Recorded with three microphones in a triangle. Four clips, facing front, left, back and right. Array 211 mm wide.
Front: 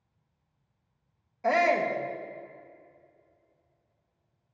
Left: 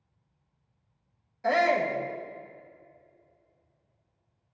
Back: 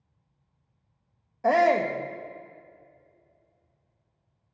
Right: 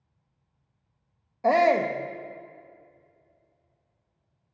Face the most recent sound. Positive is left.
turn(degrees=-125)